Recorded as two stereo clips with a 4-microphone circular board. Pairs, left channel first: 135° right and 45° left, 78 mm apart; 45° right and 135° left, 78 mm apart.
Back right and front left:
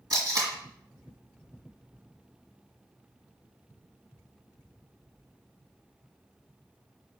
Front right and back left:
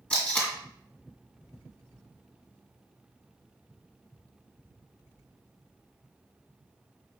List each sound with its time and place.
0.1 s tape being pulled: 25° left, 1.7 m